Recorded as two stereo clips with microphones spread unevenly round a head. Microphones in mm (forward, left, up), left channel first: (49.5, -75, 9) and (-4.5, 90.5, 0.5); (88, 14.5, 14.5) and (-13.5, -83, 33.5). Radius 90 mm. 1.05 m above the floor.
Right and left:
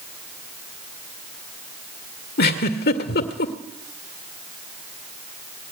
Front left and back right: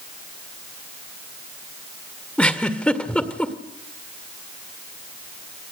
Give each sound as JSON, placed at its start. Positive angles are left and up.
{"t": 2.4, "sound": "a giggle", "azimuth_deg": -40, "distance_m": 2.0}